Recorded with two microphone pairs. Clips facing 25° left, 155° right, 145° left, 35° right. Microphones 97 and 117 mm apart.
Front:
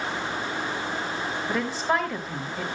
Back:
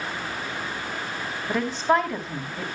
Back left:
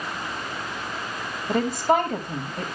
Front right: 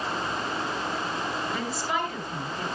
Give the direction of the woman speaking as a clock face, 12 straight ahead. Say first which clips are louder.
Back 5 dB, back left 8 dB; 8 o'clock.